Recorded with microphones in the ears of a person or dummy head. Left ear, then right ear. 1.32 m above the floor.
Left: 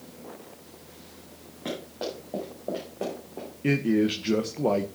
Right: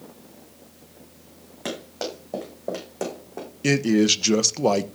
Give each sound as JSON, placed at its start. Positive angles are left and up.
{"t": 1.6, "sound": "running footsteps", "side_deg": -70, "distance_m": 8.5}
{"t": 3.6, "sound": "a man speaking", "side_deg": -70, "distance_m": 1.1}